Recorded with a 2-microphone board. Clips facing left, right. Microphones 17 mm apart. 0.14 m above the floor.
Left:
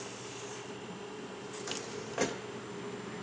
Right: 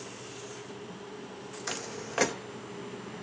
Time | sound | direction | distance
1.7 | footsteps | 40° right (ahead or behind) | 0.5 m